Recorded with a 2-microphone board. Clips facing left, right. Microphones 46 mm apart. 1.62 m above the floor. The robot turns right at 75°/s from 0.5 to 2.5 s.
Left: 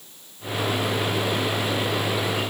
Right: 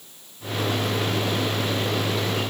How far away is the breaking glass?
No breaking glass in this recording.